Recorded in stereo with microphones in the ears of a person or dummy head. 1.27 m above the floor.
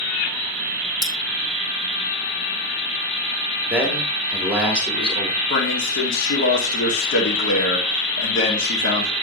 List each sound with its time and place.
1.0 s cutlery clinking: 5° left (ahead or behind), 1.1 m
3.7 s a man speaking: 10° right (ahead or behind), 2.5 m
5.5 s a man speaking: 90° left, 2.5 m